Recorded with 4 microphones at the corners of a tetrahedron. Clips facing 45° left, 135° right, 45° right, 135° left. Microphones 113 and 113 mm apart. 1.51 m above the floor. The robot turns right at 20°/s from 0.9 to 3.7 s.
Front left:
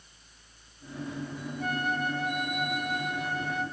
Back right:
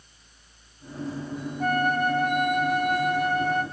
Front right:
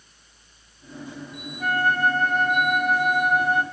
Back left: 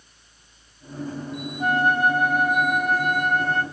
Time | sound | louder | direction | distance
1.6 | a flute | back right 7 dB, back left 2 dB | 160° right | 0.6 m